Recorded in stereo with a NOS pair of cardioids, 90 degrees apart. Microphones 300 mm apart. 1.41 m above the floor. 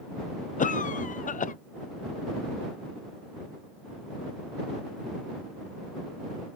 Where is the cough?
25° left.